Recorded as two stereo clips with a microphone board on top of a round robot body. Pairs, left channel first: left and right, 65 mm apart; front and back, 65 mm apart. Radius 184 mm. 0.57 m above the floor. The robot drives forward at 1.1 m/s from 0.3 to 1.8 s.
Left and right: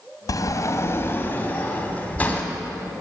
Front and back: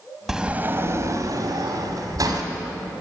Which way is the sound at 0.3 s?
95° left.